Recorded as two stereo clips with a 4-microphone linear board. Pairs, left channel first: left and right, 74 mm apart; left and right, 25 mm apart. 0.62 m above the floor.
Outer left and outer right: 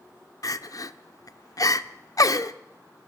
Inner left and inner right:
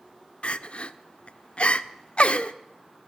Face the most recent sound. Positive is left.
turn(degrees=55)  # may be behind; listen again after turning